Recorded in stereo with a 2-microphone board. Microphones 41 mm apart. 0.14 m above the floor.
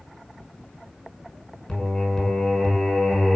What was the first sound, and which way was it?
Singing, 15° left (ahead or behind).